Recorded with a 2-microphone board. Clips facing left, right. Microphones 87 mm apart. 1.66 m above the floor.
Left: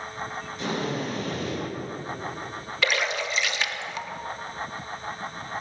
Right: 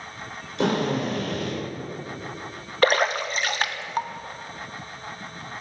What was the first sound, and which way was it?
A drill, 85° right.